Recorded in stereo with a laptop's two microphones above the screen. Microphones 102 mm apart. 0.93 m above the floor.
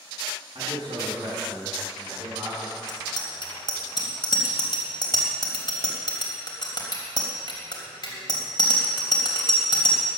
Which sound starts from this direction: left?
A bicycle bell, at 2.9 s.